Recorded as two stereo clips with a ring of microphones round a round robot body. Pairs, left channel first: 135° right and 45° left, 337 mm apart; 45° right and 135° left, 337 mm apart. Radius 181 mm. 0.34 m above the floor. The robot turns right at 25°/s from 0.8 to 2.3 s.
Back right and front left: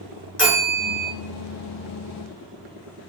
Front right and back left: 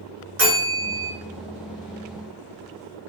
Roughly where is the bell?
Behind left.